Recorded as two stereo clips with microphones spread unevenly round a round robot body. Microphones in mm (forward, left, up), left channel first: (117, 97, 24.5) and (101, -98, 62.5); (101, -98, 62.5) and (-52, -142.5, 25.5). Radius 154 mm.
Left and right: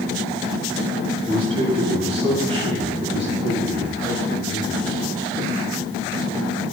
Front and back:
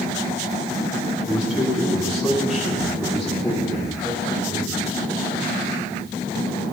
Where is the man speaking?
80° right, 7 m; by 4.9 s 75° right, 8.5 m.